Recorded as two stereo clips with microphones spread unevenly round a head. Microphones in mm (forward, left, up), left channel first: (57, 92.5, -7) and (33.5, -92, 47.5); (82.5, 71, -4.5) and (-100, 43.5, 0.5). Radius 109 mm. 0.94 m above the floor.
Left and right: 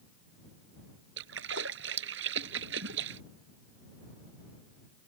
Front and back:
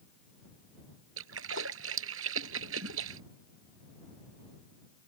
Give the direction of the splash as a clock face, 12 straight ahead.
5 o'clock.